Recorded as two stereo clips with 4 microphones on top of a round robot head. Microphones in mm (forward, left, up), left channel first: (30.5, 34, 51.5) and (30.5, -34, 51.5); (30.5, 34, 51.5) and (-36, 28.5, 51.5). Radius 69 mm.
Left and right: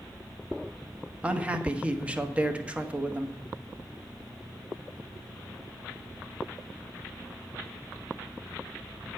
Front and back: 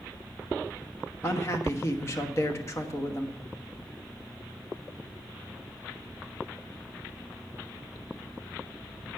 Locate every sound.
1.2 s a man speaking: 25° right, 1.4 m